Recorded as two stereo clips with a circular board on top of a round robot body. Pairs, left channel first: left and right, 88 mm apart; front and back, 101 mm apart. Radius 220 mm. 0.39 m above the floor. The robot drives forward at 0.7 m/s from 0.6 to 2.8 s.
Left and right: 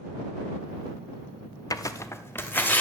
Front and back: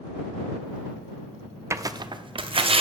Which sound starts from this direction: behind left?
Tearing paper, at 1.7 s.